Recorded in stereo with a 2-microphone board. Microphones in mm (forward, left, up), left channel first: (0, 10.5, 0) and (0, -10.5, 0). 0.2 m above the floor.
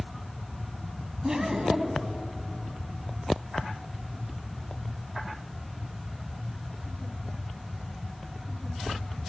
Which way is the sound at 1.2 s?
30° right (ahead or behind).